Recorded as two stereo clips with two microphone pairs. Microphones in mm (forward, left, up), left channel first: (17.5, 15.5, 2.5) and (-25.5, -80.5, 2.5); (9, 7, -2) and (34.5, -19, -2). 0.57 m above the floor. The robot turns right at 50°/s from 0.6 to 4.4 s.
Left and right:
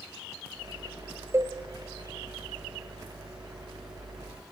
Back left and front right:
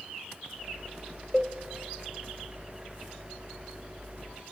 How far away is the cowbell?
About 0.8 m.